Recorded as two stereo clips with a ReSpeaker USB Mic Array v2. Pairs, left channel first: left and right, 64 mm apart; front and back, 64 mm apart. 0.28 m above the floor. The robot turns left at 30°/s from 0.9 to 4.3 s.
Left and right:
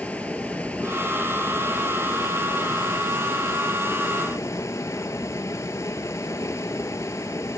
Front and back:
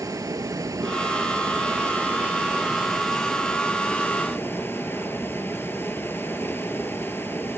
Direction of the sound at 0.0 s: 160° left.